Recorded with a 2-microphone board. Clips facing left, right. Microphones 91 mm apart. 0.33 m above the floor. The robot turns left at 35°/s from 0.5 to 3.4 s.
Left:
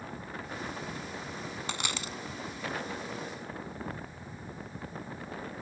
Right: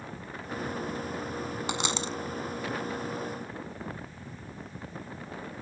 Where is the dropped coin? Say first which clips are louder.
Right 6 dB; 20° right (ahead or behind); by 2.2 s 35° right (ahead or behind).